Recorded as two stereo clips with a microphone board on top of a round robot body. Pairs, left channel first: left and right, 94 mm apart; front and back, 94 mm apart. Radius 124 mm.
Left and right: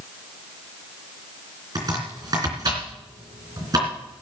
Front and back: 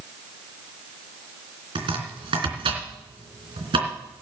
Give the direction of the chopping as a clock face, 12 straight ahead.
5 o'clock.